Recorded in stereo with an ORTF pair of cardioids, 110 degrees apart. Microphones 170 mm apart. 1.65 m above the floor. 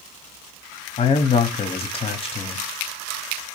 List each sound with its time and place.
1.0 s a man speaking: 35° left, 0.9 m